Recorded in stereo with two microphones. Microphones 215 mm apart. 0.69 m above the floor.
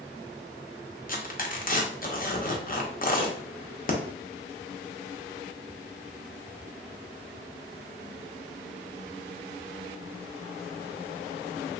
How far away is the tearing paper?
About 0.5 m.